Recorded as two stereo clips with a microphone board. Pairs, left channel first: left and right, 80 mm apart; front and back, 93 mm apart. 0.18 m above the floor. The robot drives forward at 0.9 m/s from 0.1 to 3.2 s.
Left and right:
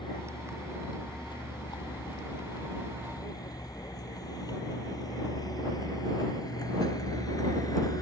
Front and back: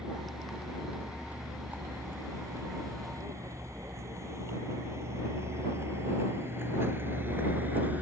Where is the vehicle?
100° left; by 8.0 s 115° left.